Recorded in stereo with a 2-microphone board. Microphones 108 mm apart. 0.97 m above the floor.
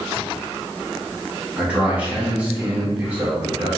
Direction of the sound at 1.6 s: 15° right (ahead or behind).